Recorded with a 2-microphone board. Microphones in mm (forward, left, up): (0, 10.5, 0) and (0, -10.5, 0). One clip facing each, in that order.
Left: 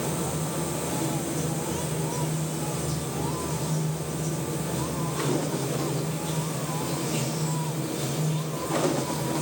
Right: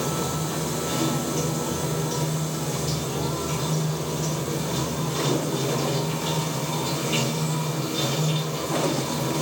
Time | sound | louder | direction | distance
0.0 | running water | right 3 dB | 55° right (ahead or behind) | 1.7 m